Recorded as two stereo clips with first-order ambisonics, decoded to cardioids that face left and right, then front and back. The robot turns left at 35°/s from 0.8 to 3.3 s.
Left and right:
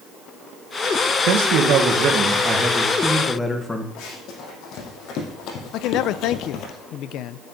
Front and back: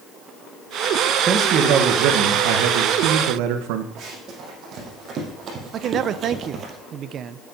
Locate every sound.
1.3 s a man speaking: 120° right, 1.7 m; by 3.9 s 170° left, 1.7 m
4.0 s running footsteps: 125° left, 5 m
5.7 s a man speaking: 125° left, 0.7 m